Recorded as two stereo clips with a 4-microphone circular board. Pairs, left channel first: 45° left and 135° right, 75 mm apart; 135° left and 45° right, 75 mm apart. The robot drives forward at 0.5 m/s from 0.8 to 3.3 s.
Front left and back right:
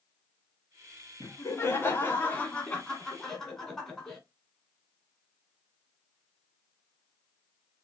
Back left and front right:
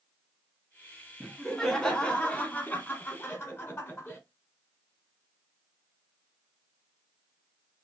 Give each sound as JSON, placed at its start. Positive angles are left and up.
{"t": 1.2, "sound": "laughter", "azimuth_deg": 45, "distance_m": 1.5}